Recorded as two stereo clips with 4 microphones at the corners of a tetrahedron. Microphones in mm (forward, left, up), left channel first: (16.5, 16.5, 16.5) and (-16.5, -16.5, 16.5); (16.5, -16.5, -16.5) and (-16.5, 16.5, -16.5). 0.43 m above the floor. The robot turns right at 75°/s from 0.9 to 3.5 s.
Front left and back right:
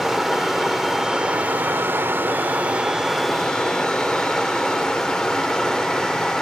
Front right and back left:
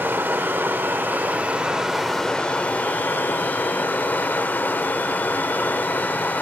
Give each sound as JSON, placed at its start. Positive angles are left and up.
{"t": 0.0, "sound": "running water", "azimuth_deg": 140, "distance_m": 0.8}